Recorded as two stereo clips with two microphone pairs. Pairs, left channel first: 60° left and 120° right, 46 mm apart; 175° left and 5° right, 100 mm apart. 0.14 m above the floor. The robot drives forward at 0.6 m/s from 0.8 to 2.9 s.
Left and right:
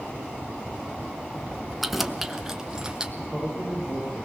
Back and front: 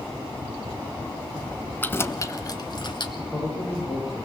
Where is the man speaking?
100° left, 8 m.